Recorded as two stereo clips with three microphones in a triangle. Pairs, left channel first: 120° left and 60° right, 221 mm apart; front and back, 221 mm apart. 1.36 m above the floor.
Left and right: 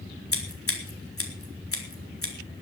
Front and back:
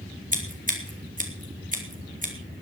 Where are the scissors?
125° left, 3.5 m.